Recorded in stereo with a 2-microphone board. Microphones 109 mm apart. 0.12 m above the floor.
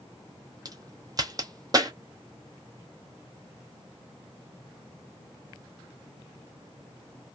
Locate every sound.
0.7 s a crack: 35° right (ahead or behind), 0.6 m